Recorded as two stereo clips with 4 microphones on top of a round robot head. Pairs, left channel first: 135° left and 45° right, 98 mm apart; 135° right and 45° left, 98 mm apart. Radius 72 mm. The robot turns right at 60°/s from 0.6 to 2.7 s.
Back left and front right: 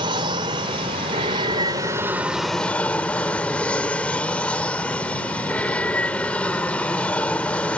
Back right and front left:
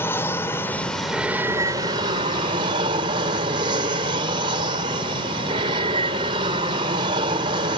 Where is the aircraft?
70° right; by 7.8 s 55° left.